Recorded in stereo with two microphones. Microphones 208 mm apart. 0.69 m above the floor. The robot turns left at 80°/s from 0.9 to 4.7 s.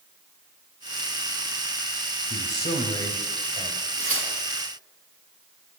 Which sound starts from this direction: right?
Tearing paper, at 4.0 s.